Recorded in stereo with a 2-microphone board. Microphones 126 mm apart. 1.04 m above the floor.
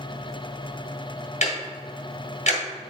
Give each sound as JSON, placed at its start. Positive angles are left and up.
{"t": 1.4, "sound": "ticking", "side_deg": 65, "distance_m": 1.7}